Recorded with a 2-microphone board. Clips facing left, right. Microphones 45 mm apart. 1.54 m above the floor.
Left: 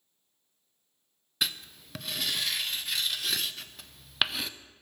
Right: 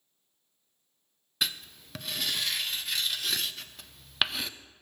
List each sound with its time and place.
1.4 s writing: centre (ahead or behind), 0.5 m